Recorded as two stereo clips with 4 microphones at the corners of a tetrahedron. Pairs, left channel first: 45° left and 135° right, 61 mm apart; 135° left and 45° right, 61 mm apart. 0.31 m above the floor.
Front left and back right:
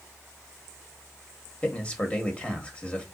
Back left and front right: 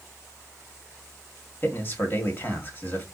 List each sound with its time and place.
1.6 s a man speaking: 105° left, 1.2 m